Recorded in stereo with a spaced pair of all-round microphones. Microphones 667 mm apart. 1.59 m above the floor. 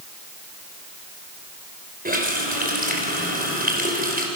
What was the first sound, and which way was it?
A running tap, 15° right (ahead or behind).